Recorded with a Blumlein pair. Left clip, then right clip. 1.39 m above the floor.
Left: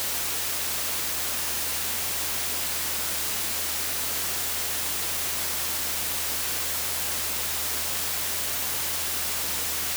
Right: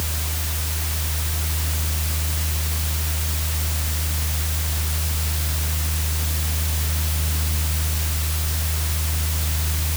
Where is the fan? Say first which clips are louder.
Right 1 dB; 40° right.